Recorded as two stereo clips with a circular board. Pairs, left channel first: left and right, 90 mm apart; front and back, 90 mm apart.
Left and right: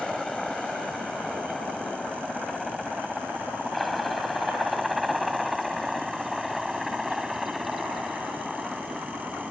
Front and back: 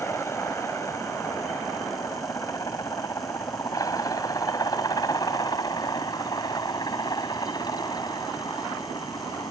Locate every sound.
0.0 s a helicopter: 10° left; by 9.5 s 5° right